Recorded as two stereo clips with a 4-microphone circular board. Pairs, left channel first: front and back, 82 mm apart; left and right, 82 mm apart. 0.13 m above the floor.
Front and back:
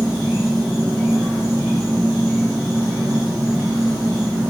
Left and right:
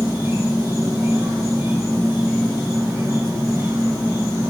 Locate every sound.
0.0 s an insect: 95° right, 1.4 m